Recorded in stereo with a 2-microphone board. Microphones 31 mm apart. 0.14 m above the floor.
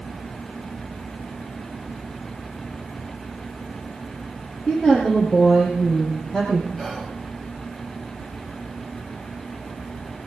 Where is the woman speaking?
30° left (ahead or behind), 3.5 m; by 6.7 s 45° left (ahead or behind), 4.5 m.